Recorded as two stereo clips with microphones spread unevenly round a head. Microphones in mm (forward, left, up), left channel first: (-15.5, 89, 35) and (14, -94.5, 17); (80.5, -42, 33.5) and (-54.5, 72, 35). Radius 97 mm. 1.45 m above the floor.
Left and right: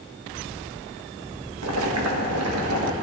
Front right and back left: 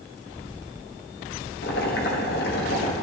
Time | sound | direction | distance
1.6 | boiling | 80° right | 1.4 m